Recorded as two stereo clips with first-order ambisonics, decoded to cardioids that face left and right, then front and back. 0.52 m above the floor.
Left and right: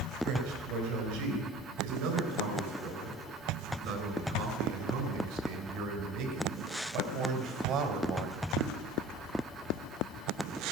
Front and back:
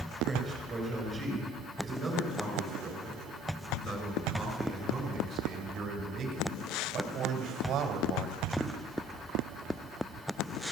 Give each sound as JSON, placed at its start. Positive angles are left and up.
{"t": 0.2, "sound": "a man speaking", "azimuth_deg": -95, "distance_m": 7.0}